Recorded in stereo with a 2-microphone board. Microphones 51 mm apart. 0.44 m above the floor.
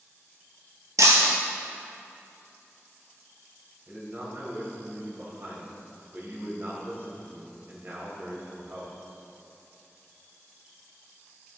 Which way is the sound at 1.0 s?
75° right (ahead or behind).